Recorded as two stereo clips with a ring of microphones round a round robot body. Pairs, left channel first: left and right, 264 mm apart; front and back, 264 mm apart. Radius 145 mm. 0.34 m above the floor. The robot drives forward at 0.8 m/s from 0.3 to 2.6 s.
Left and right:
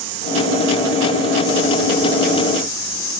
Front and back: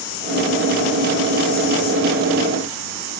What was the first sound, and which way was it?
Only background noise.